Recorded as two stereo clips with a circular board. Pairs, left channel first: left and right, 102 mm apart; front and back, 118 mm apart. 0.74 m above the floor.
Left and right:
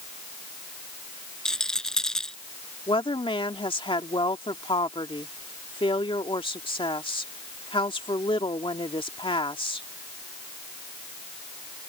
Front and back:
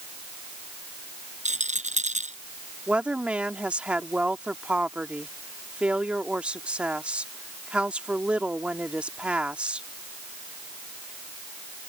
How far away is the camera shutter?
No camera shutter in this recording.